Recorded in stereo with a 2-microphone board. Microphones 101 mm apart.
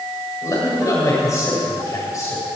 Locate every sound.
0.4 s a man speaking: 35° left (ahead or behind), 6.5 m